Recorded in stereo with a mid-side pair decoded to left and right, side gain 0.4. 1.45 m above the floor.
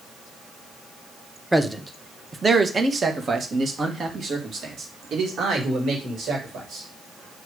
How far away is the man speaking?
About 1.1 m.